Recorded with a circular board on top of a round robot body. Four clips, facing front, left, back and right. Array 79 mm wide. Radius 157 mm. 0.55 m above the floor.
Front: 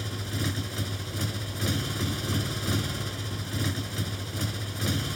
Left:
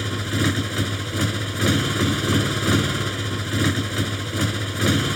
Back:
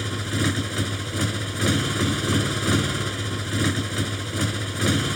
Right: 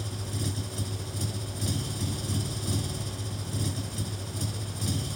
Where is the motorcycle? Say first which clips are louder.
Left 12 dB, back 7 dB; 120° left.